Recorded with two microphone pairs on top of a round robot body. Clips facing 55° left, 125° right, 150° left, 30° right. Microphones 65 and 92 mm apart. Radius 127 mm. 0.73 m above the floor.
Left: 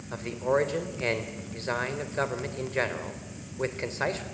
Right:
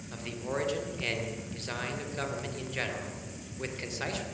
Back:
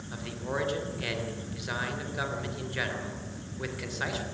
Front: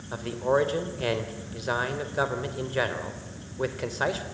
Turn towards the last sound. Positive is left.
turn(degrees=15)